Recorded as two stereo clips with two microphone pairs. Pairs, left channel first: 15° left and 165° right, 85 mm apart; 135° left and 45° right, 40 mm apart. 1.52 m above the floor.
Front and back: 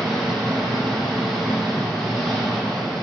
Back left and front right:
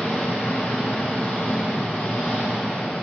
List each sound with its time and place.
0.0 s an engine running: 100° left, 2 m